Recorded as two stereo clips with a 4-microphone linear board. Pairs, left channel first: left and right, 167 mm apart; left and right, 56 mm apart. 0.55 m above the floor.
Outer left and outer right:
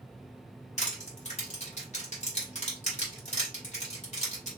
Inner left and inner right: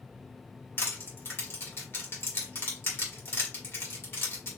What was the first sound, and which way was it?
Crushing, 40° left (ahead or behind).